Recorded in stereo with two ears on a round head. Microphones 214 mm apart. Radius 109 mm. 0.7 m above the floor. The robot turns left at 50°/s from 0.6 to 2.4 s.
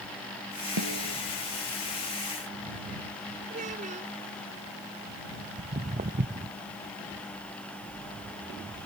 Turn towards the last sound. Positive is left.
turn(degrees=-35)  # may be behind; listen again after turning